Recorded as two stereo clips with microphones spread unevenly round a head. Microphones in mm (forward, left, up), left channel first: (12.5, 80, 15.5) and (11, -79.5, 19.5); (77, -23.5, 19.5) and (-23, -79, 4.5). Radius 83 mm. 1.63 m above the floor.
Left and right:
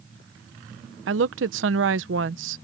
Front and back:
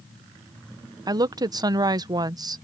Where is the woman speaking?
95° right.